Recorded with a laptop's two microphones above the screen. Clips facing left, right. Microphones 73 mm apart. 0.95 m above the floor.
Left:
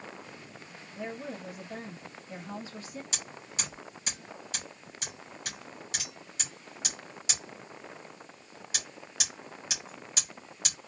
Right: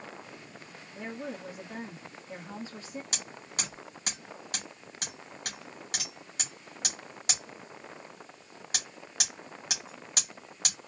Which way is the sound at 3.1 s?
50° right (ahead or behind).